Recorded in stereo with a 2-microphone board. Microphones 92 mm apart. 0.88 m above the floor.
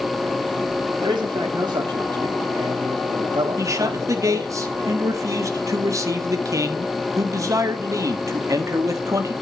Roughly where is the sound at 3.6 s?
Right.